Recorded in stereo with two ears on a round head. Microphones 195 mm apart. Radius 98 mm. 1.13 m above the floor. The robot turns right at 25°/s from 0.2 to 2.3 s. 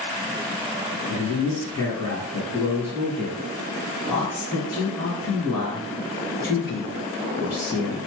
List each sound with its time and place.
1.1 s a woman speaking: 130° left, 1.7 m; by 8.0 s 160° left, 1.7 m